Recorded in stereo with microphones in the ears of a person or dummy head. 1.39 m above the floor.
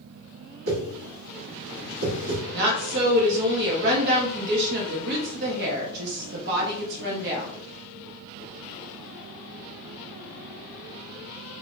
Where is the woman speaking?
60° right (ahead or behind), 0.7 m.